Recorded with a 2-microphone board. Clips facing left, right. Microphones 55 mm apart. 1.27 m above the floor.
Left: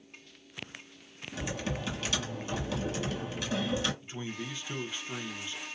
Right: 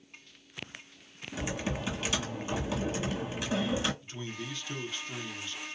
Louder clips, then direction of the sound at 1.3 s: Right 1 dB; 15° right (ahead or behind).